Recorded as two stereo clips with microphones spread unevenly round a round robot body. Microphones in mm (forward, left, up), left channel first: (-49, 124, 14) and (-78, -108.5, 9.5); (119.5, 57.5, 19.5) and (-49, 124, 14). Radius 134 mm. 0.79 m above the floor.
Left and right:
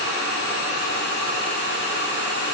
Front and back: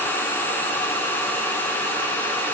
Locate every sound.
Only background noise.